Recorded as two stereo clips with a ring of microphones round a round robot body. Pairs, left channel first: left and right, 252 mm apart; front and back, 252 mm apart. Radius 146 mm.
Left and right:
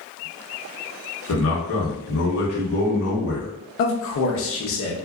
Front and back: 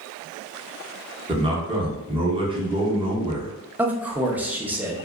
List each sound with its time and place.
1.3 s a man speaking: 110° left, 0.9 m
3.8 s a man speaking: 100° left, 0.7 m